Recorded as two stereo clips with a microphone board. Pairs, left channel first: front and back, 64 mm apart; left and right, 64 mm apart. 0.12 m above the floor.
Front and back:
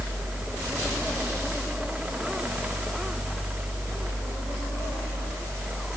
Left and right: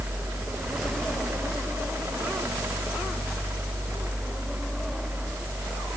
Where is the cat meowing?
I don't hear a cat meowing.